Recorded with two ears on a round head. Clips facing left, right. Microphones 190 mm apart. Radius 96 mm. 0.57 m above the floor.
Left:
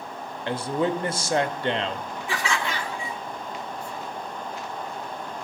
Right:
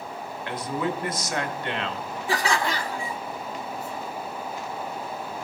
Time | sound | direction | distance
0.5 | a man speaking | 25° left (ahead or behind) | 0.8 m
2.3 | laughter | 35° right (ahead or behind) | 0.7 m